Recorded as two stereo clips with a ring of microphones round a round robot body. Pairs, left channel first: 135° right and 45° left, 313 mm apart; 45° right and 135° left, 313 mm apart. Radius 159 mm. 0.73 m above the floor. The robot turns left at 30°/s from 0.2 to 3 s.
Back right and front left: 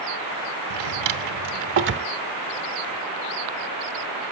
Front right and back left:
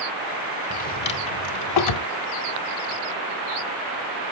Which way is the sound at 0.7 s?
25° left.